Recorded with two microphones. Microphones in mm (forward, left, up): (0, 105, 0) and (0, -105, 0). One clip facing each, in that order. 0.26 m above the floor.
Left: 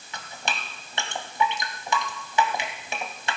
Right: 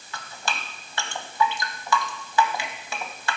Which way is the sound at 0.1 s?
20° left (ahead or behind).